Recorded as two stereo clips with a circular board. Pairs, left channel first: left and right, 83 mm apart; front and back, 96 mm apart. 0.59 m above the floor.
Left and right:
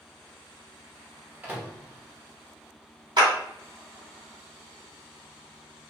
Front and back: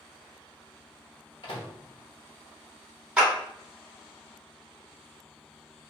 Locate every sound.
1.4 s a microwave: 25° right, 0.9 m
3.2 s a clap: 100° right, 1.4 m